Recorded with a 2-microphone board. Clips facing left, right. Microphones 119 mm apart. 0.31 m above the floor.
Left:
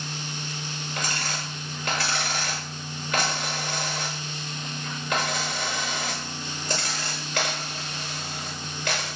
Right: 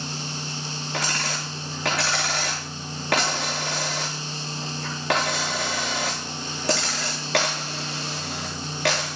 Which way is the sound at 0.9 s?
80° right.